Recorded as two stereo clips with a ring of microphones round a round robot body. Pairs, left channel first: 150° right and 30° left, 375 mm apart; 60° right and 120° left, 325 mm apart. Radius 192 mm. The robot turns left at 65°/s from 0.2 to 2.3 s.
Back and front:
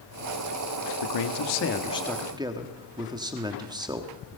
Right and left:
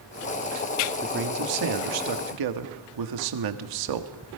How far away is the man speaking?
About 1.6 m.